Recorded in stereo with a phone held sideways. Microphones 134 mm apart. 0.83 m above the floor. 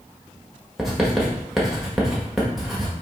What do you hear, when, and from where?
0.8 s writing: centre (ahead or behind), 1.3 m